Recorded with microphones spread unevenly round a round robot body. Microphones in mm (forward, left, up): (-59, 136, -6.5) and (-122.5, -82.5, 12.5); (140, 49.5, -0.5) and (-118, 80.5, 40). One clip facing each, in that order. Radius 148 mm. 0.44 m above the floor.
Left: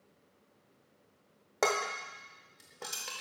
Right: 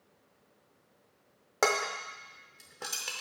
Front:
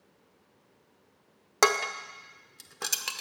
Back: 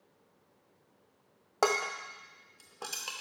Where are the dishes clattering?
20° right, 0.5 m.